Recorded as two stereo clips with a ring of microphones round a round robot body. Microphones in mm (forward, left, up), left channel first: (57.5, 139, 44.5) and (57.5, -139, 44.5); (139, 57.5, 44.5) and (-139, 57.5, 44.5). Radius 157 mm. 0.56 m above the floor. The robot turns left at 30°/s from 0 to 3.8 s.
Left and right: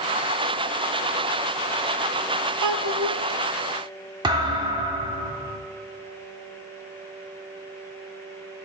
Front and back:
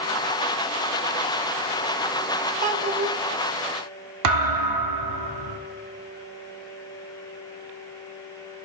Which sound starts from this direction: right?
A child speaking, at 2.6 s.